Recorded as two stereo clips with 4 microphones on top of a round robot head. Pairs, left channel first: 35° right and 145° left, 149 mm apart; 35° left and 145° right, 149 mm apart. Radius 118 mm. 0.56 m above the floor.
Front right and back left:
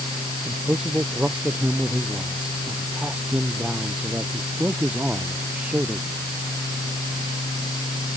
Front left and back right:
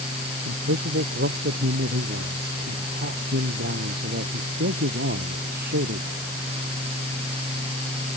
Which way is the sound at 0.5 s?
130° right.